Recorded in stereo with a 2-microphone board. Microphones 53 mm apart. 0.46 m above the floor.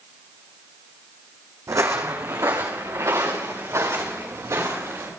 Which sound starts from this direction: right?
Footsteps, at 1.7 s.